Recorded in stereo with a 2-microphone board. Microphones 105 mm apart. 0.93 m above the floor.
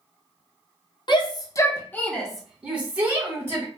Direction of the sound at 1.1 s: 45° left (ahead or behind).